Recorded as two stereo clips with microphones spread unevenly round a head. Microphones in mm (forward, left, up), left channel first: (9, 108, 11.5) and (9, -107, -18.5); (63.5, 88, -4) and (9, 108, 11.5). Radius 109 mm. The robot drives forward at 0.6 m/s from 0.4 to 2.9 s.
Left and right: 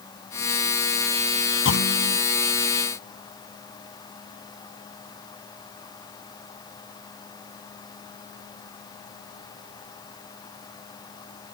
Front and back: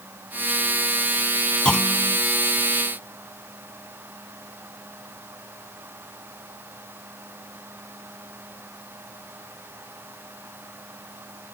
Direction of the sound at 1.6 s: 55° left.